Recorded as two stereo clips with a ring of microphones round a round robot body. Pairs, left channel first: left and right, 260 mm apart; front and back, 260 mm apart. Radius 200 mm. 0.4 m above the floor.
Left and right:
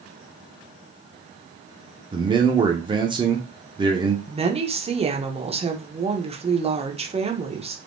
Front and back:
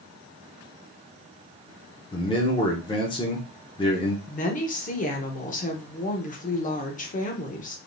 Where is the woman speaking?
35° right, 0.9 m.